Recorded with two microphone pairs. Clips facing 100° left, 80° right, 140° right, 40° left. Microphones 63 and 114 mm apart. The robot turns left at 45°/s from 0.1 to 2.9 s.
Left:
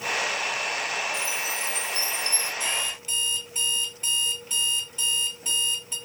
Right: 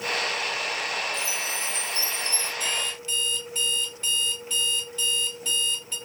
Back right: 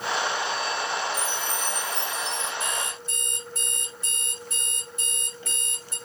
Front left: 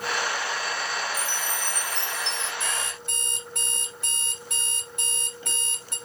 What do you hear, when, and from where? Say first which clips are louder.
1.1 s a chime: left 1 dB, back right 2 dB; 135° left, 1.3 m; by 2.5 s 75° left, 1.3 m
2.6 s an alarm clock: even, back right 1 dB; 40° left, 2.0 m; by 6.0 s 25° left, 2.0 m